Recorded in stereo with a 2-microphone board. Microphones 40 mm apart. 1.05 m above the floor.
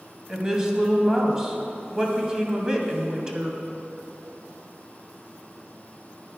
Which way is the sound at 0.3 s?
20° right (ahead or behind).